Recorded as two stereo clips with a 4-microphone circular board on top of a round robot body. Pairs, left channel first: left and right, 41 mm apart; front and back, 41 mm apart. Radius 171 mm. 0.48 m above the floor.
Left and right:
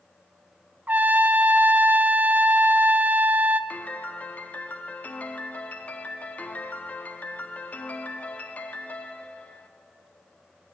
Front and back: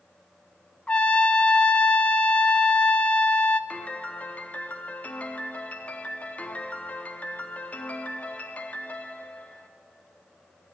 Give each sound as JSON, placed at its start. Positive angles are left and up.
{"t": 0.9, "sound": "a trumpet", "azimuth_deg": -55, "distance_m": 0.5}
{"t": 3.7, "sound": "a piano", "azimuth_deg": 45, "distance_m": 0.8}